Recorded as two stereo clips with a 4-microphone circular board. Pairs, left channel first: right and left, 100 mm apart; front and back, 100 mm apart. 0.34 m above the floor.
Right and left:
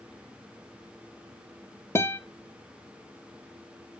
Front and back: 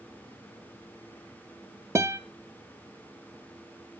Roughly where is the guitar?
Behind right.